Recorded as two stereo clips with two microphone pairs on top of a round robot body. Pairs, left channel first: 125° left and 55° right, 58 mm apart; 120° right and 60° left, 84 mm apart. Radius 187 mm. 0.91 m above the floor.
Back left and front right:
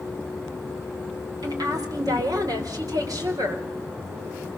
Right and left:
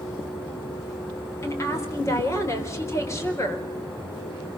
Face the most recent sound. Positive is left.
turn(degrees=-65)